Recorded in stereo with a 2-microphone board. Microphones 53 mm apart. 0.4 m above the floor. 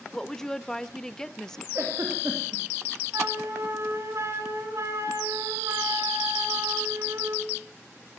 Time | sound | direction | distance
0.1 | a woman speaking | 10° left (ahead or behind) | 0.8 m
1.8 | a giggle | 50° right (ahead or behind) | 5 m
3.1 | a flute | 60° right (ahead or behind) | 3 m